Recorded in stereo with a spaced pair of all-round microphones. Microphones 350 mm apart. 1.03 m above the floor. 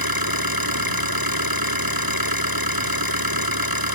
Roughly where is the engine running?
Right.